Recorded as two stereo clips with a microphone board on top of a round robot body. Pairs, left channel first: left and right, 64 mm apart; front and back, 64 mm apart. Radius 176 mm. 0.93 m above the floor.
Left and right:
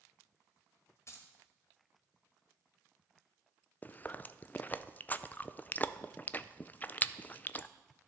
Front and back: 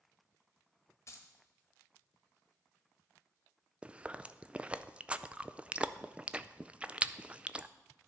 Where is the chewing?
125° left, 0.5 m.